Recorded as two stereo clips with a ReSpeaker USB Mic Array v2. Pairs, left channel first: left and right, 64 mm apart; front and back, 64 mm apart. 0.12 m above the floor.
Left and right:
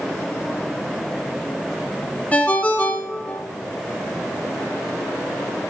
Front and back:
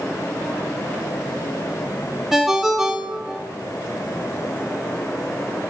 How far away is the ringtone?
About 0.7 m.